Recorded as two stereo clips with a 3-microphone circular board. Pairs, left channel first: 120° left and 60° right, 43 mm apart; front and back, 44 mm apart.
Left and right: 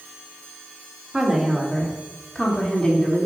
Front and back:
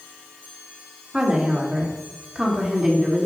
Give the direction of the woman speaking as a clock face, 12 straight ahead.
4 o'clock.